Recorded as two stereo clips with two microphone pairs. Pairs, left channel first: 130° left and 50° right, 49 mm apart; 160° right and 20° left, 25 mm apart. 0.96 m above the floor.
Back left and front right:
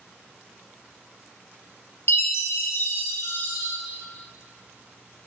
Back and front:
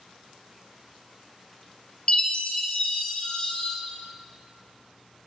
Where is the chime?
150° left, 0.6 m.